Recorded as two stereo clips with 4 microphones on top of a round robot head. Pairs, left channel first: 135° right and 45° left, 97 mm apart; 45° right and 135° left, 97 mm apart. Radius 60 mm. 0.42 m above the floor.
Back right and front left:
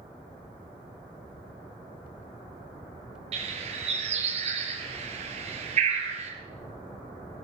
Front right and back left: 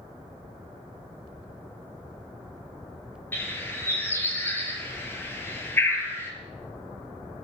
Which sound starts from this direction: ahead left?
A bird, at 3.3 s.